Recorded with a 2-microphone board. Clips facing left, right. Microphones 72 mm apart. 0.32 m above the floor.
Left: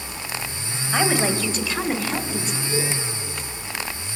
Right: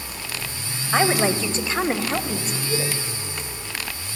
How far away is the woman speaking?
About 1.4 m.